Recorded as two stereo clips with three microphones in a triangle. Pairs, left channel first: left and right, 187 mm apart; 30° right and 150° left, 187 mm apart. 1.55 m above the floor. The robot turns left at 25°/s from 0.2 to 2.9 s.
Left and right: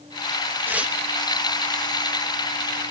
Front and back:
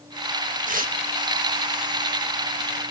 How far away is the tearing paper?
About 1.4 m.